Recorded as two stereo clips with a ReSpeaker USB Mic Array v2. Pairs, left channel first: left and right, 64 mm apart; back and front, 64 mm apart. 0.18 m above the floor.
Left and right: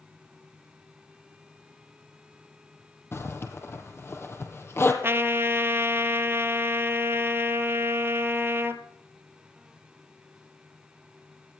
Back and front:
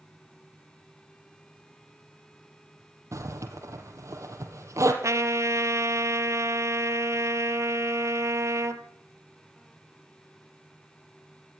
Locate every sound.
3.1 s a zipper: 40° left, 3 m
5.0 s a trumpet: 40° right, 1.4 m